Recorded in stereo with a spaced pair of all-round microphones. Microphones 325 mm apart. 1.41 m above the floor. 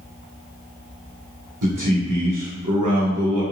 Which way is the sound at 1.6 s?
70° right (ahead or behind).